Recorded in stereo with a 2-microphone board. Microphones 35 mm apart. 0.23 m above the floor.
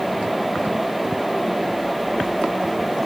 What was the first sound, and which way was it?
Only background noise.